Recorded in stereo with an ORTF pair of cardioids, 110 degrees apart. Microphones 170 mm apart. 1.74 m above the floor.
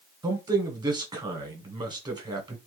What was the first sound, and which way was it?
A man speaking, 25° right.